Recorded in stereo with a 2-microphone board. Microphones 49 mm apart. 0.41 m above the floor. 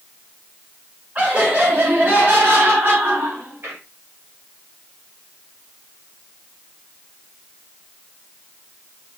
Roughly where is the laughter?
Right.